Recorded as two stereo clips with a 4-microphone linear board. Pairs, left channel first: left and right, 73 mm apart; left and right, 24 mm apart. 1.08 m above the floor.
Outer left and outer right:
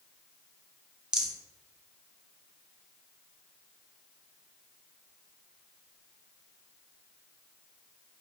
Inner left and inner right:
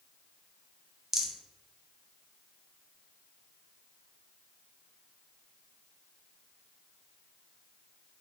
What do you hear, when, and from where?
1.1 s a rattle: 10° right (ahead or behind), 0.5 m